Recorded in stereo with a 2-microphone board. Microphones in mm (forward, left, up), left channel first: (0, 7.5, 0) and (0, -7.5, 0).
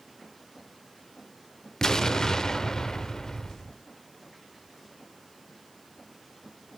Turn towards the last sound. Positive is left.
turn(degrees=45)  # may be behind; listen again after turning